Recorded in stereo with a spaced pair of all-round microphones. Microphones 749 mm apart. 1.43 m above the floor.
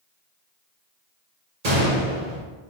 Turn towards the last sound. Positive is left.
turn(degrees=-60)  # may be behind; listen again after turning